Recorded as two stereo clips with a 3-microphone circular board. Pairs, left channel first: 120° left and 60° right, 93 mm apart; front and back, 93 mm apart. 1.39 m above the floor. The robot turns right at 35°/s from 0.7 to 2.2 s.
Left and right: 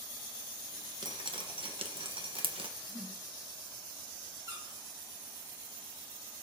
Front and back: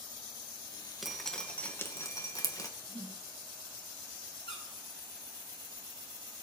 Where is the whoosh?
10° right, 5 m.